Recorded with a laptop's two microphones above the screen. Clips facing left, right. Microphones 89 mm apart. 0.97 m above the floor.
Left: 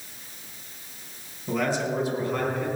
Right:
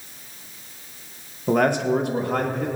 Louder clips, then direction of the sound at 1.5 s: Right 7 dB; 50° right (ahead or behind).